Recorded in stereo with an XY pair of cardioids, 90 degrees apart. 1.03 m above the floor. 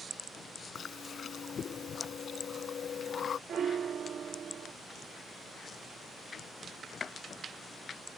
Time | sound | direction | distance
0.8 | chewing | 60° left | ?
3.5 | a piano | 55° right | ?